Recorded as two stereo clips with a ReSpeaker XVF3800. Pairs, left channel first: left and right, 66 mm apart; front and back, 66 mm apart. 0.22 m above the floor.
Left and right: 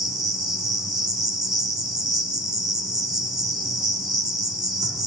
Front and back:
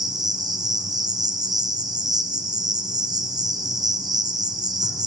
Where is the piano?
I don't hear a piano.